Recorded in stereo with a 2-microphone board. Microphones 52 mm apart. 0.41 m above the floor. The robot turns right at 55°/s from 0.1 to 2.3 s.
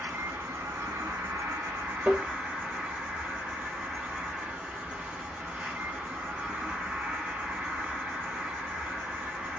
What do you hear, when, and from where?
0.0 s an insect: 145° right, 1.0 m; by 9.6 s 25° right, 1.0 m
2.0 s tapping: 25° right (ahead or behind), 0.6 m; by 2.3 s 35° right (ahead or behind), 0.6 m